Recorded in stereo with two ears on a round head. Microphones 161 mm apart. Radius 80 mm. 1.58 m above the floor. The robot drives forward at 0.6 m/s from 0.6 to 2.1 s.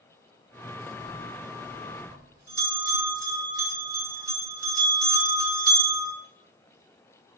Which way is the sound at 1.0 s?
25° right (ahead or behind).